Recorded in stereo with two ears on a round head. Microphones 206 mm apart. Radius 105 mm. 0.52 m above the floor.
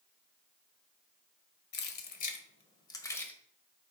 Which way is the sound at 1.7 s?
50° left (ahead or behind).